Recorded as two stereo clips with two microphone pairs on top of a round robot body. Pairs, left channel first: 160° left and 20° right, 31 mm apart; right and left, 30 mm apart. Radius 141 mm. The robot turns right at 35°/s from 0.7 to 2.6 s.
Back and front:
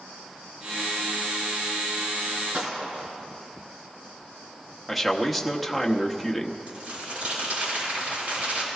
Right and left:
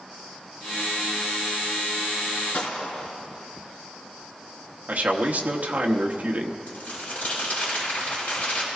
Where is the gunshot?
70° right, 3.5 m.